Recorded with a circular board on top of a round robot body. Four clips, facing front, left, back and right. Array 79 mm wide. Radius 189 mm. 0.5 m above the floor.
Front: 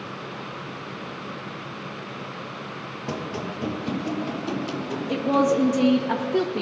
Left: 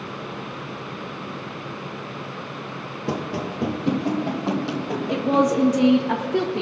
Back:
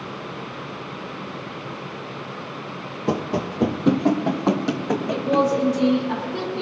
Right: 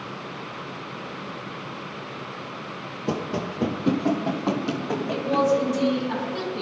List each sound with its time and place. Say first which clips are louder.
3.1 s running footsteps: even, back 7 dB; 175° right, 0.5 m; by 5.5 s 170° right, 1.9 m
5.1 s a woman speaking: left 2 dB, even; 55° left, 1.4 m